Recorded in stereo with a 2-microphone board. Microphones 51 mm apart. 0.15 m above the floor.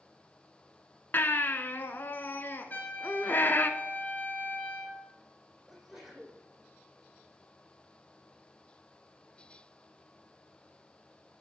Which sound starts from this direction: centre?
A sneeze, at 5.7 s.